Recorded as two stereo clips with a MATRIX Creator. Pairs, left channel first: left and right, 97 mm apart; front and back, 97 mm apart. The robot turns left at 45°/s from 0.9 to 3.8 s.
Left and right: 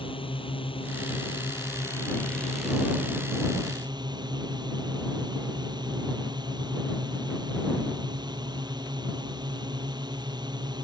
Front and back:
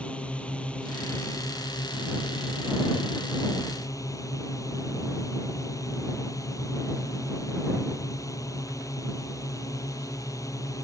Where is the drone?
80° left; by 10.9 s 55° right.